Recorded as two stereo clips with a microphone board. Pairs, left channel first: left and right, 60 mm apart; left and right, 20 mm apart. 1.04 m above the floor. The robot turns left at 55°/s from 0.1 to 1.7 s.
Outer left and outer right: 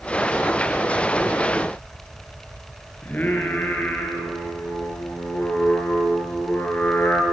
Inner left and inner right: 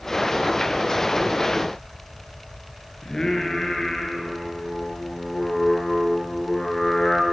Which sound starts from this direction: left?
Singing, at 3.0 s.